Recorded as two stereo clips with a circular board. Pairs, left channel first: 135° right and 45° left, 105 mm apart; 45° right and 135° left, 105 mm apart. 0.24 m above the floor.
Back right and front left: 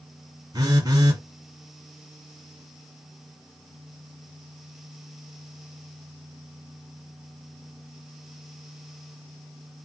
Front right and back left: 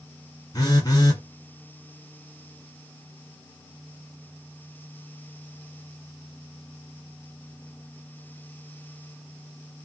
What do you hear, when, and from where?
0.5 s a phone buzzing: straight ahead, 1.8 m